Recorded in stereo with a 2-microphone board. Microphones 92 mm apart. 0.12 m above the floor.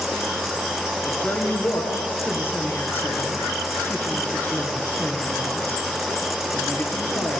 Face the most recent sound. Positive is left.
turn(degrees=25)  # may be behind; listen again after turning